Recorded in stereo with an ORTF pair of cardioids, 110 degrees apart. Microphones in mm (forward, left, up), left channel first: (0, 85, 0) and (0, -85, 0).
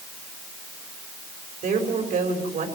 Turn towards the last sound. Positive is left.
turn(degrees=-55)